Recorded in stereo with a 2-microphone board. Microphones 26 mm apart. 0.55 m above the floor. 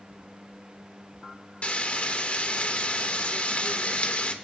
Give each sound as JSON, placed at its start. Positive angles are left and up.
{"t": 1.6, "sound": "frying", "side_deg": 55, "distance_m": 1.5}